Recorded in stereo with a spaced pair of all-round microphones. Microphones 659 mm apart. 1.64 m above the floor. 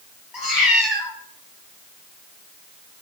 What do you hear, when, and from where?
0.3 s a cat meowing: 30° left (ahead or behind), 1.6 m